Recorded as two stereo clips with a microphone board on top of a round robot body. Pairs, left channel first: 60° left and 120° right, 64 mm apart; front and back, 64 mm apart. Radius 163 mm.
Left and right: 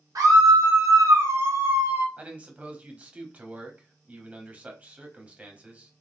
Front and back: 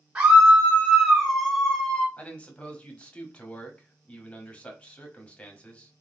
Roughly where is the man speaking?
Ahead right.